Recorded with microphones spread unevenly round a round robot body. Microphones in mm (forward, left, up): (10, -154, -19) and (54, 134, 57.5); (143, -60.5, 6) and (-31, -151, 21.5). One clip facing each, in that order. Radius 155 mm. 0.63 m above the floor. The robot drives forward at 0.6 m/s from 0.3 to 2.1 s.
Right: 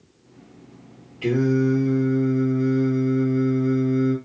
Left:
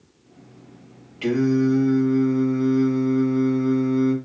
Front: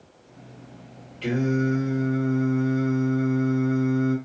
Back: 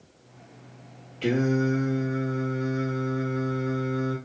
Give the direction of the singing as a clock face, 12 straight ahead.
8 o'clock.